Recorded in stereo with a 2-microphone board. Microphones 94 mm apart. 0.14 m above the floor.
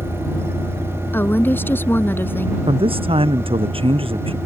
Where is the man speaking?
80° right.